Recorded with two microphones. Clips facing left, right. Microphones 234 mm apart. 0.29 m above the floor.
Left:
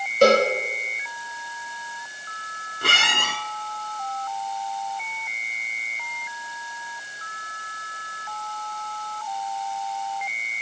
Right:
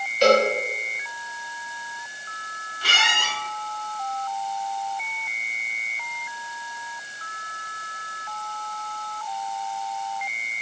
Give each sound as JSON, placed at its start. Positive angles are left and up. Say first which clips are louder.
{"t": 0.2, "sound": "a cowbell", "louder": "left 1 dB", "side_deg": 55, "distance_m": 7.0}
{"t": 2.8, "sound": "a squeak", "louder": "left 2 dB", "side_deg": 55, "distance_m": 1.7}